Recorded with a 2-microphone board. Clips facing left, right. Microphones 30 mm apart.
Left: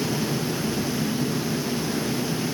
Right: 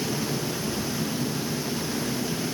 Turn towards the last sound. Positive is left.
No sound to turn to.